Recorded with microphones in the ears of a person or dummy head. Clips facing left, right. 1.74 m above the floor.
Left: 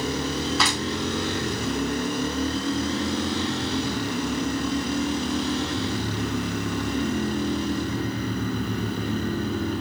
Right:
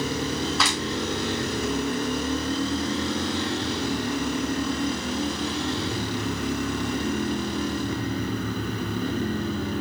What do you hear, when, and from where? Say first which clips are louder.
0.6 s a clap: left 1 dB; centre (ahead or behind), 6.5 m